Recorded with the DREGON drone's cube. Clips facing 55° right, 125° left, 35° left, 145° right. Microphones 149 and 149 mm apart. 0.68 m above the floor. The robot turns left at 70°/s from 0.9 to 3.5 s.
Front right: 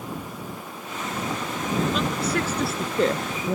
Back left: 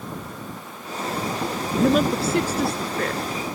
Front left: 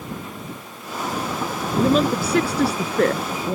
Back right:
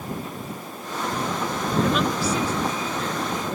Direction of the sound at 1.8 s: 95° left.